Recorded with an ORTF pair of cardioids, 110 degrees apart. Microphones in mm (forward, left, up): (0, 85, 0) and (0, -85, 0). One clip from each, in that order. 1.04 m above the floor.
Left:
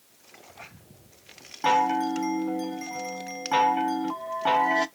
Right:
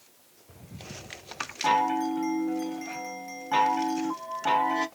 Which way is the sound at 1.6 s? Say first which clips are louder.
Left 2 dB; 20° left.